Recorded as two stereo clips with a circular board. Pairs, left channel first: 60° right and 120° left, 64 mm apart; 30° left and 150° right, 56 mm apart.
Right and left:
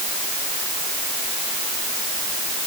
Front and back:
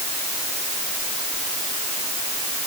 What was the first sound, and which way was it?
Only background noise.